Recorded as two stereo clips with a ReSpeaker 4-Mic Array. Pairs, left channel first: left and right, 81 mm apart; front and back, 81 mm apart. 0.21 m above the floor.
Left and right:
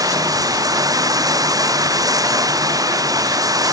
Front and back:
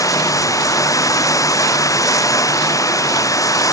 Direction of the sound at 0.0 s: 50° right.